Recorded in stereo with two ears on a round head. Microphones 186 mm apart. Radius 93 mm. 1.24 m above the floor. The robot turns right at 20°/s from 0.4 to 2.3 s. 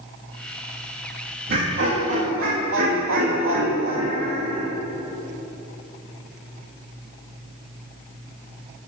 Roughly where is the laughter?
Right.